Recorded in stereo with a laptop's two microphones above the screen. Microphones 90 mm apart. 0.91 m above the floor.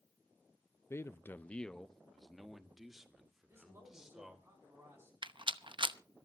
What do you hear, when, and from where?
0.9 s a man speaking: 25° left (ahead or behind), 0.5 m; by 4.5 s 5° right (ahead or behind), 3.5 m
3.5 s a man speaking: 25° right (ahead or behind), 6 m
5.2 s a rattle: 60° right (ahead or behind), 0.8 m